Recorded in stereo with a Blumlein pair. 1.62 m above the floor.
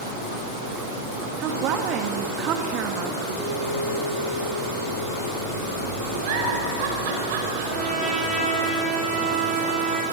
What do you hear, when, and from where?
1.4 s a woman speaking: 35° right, 2.5 m
3.4 s a piano: 20° left, 7 m
6.2 s a giggle: 50° right, 4.5 m
7.7 s a trumpet: straight ahead, 5.5 m